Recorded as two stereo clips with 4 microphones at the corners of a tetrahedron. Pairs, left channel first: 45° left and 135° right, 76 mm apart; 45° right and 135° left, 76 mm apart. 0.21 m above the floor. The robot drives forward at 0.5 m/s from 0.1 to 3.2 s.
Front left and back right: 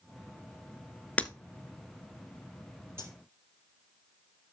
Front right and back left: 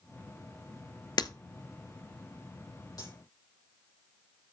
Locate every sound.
1.2 s breaking glass: 25° right, 0.7 m; by 1.3 s 30° right, 0.6 m
3.0 s cutlery clinking: 80° right, 3.5 m